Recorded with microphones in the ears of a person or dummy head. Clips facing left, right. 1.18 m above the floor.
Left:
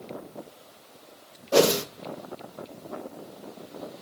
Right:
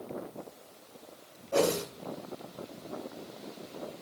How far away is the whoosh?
About 0.7 m.